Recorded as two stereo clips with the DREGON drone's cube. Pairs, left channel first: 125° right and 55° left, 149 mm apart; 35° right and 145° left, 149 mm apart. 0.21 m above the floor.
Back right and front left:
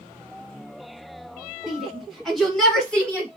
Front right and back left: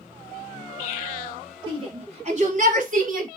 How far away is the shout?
About 1.3 m.